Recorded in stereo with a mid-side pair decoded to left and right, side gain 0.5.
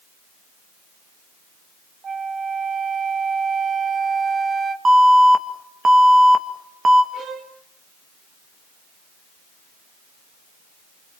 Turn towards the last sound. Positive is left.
turn(degrees=-55)